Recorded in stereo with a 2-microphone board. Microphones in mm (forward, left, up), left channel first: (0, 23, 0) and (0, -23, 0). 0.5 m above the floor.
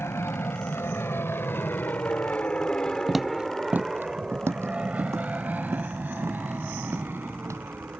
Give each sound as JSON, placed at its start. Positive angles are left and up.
{"t": 0.0, "sound": "an aircraft", "side_deg": 65}
{"t": 3.1, "sound": "footsteps", "side_deg": 5}